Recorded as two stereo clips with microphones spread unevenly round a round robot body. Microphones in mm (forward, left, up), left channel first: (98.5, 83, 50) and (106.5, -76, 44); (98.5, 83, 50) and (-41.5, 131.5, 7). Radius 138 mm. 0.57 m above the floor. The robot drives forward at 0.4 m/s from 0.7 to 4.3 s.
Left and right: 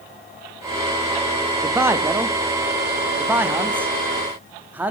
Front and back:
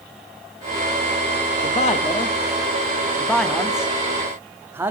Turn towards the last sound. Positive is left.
turn(degrees=-160)